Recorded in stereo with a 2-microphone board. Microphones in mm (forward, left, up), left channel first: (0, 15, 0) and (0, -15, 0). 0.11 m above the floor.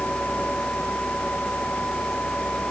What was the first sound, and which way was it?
Only background noise.